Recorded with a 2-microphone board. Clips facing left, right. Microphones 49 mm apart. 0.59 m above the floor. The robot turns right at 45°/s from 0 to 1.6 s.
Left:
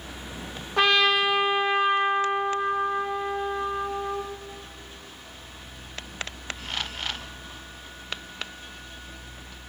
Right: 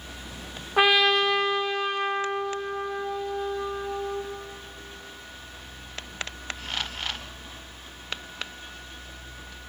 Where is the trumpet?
15° right, 1.2 m; by 4.2 s 25° left, 1.2 m.